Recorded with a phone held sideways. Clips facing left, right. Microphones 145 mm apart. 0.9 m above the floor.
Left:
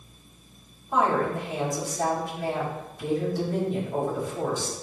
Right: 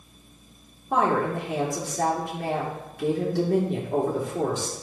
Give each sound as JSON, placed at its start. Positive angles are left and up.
{"t": 0.9, "sound": "a woman speaking", "side_deg": -75, "distance_m": 2.5}